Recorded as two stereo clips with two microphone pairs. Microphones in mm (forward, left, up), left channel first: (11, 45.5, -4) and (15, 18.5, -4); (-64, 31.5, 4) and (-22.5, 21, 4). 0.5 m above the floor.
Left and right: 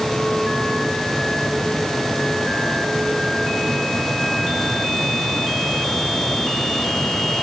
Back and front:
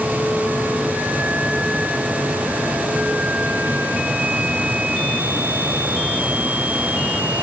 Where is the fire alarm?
I don't hear a fire alarm.